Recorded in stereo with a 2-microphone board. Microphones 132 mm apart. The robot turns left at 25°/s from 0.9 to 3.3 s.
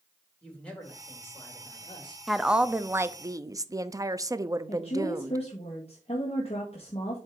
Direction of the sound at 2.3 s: Centre (ahead or behind).